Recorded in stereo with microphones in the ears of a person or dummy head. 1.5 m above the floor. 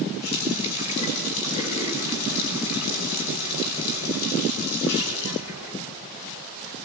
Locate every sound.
0.2 s a running tap: 80° left, 6.5 m